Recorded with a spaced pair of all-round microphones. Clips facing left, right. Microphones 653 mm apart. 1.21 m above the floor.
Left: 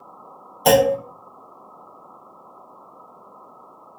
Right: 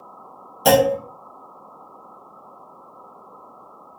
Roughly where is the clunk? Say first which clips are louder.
Even; right.